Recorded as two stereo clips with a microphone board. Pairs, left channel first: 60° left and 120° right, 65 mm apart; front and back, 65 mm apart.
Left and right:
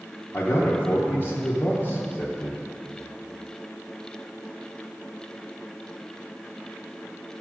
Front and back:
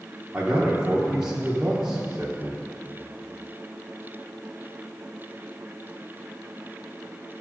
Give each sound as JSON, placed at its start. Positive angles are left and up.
{"t": 0.3, "sound": "a man speaking", "azimuth_deg": 110, "distance_m": 1.0}